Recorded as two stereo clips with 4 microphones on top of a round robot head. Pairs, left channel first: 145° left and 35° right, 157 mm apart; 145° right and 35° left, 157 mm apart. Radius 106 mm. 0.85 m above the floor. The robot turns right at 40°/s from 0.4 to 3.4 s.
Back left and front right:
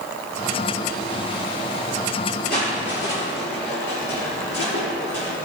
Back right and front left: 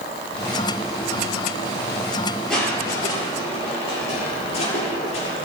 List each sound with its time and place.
2.5 s crushing: 125° left, 10 m; by 5.5 s 160° left, 10 m